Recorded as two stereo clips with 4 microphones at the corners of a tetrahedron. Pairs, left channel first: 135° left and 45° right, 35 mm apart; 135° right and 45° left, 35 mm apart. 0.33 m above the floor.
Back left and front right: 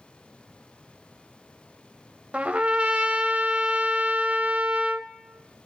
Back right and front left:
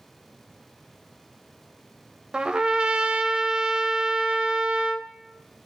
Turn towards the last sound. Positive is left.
turn(degrees=-15)